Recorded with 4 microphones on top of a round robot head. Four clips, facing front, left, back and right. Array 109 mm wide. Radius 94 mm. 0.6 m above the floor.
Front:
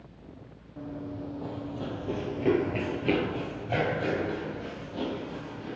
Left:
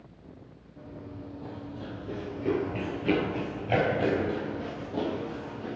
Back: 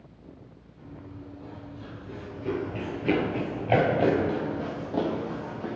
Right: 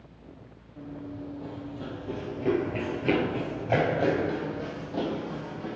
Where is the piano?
I don't hear a piano.